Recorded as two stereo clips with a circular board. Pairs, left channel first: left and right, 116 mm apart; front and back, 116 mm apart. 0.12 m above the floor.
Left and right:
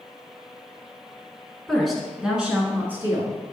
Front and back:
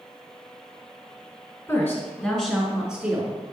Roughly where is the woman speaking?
Ahead.